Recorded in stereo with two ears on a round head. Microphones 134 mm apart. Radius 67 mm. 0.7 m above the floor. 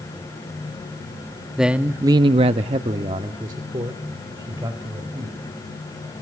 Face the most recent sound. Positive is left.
turn(degrees=-25)  # may be behind; listen again after turning